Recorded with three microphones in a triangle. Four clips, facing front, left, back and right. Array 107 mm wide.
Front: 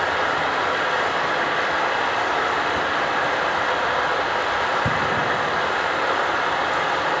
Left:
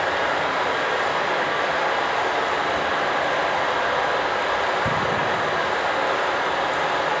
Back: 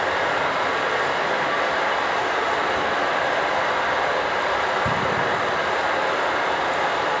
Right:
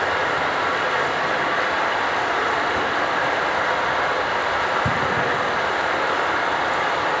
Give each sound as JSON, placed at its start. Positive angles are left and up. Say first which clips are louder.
{"t": 0.0, "sound": "running water", "louder": "right 1 dB, even", "azimuth_deg": -30, "distance_m": 4.0}